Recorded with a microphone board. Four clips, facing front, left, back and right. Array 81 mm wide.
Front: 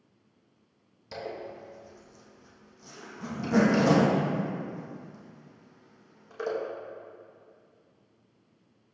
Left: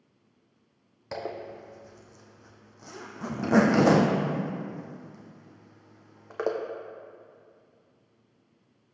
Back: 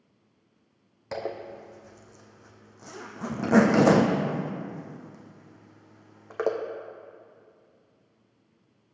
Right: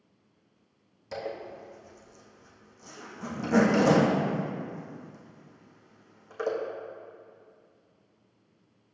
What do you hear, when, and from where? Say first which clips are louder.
1.1 s a zipper: left 1 dB, back 4 dB; 145° left, 1.1 m